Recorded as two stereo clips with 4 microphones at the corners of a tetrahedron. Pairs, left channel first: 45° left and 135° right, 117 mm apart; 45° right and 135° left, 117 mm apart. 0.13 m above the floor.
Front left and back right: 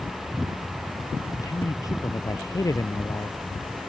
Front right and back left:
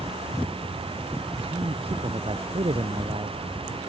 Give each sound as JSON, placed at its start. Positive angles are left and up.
{"t": 1.4, "sound": "a man speaking", "azimuth_deg": 105}